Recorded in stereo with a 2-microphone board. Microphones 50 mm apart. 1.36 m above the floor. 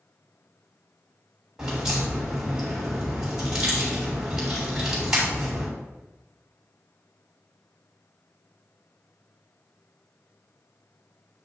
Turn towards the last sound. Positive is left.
turn(degrees=-15)  # may be behind; listen again after turning